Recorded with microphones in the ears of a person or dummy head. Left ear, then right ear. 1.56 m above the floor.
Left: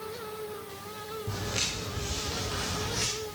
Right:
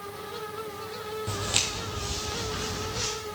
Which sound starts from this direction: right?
Footsteps, at 1.3 s.